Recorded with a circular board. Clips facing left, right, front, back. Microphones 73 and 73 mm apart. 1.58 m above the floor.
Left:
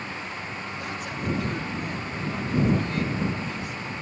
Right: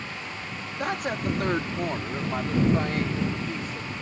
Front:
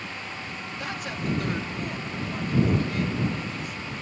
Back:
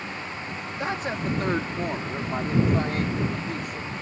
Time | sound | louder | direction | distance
0.8 | a woman speaking | right 7 dB, back 5 dB | 120° right | ?